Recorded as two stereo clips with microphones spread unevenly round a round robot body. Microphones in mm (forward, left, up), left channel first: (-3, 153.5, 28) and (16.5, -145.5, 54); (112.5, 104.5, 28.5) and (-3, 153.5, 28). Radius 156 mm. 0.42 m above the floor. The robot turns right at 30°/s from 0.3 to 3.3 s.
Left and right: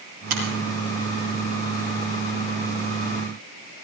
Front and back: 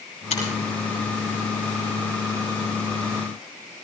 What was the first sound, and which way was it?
A finger snap, 80° right.